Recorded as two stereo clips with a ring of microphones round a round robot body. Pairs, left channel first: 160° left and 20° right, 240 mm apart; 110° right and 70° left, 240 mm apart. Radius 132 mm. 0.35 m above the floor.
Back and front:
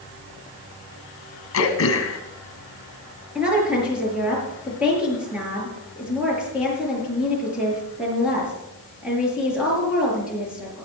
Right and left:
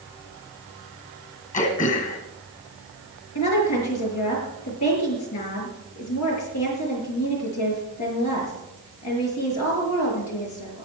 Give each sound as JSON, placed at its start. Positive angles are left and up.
{"t": 1.5, "sound": "throat clearing", "azimuth_deg": -170, "distance_m": 1.9}
{"t": 3.4, "sound": "a woman speaking", "azimuth_deg": -110, "distance_m": 6.0}